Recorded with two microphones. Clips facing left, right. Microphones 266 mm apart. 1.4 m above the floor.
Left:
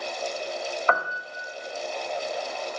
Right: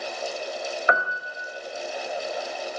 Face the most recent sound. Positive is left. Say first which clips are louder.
# right 1 dB
turn(degrees=-15)  # may be behind; listen again after turning